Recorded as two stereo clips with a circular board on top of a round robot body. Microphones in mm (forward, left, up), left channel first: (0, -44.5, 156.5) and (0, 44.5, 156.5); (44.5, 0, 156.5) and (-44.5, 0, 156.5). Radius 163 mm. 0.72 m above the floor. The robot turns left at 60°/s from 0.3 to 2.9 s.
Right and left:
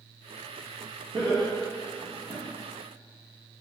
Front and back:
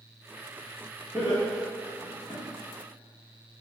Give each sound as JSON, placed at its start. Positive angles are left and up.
{"t": 1.1, "sound": "laughter", "azimuth_deg": 115, "distance_m": 1.5}